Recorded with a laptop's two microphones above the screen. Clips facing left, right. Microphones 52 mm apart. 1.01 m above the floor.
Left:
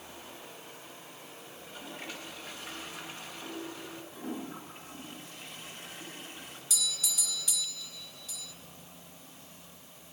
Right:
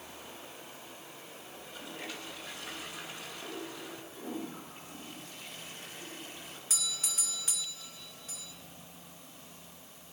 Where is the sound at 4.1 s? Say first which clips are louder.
Left 1 dB; 45° left (ahead or behind), 10 m.